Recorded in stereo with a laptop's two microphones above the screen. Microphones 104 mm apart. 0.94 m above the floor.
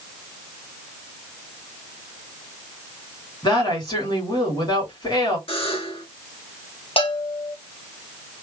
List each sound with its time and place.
3.4 s a woman speaking: 50° left (ahead or behind), 2 m
5.5 s a buzzer: 60° left (ahead or behind), 1.8 m
7.0 s a bell: 60° left (ahead or behind), 1.5 m